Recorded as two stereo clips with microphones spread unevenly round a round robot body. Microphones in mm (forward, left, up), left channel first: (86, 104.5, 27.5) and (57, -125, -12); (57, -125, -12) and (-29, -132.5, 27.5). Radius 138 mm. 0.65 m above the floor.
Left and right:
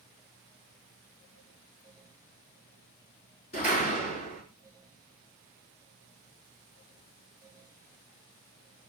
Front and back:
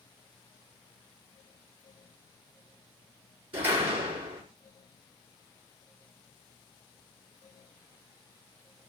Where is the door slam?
150° left, 5 m.